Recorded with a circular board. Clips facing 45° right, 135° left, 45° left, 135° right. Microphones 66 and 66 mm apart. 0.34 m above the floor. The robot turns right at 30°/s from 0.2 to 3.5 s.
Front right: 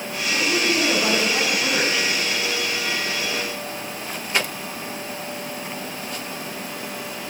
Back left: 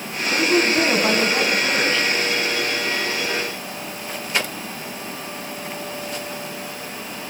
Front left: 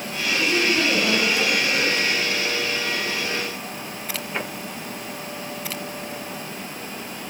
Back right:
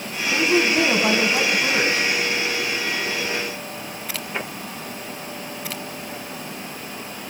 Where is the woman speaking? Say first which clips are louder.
Back left 4 dB, back right 3 dB; 170° right, 2.5 m; by 2.1 s 120° right, 2.5 m.